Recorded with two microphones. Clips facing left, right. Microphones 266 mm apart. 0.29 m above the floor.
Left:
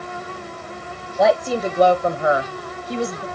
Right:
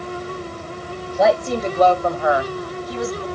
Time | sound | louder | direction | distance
1.2 | a woman speaking | even | centre (ahead or behind) | 1.2 m